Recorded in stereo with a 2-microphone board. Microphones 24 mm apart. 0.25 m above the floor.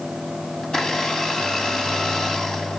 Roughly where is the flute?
No flute in this recording.